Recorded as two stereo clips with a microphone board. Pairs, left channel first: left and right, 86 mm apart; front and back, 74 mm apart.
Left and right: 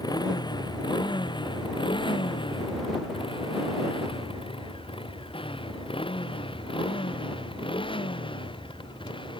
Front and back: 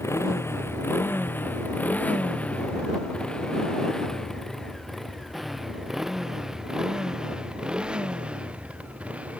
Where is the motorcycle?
50° left; by 9.4 s 110° left.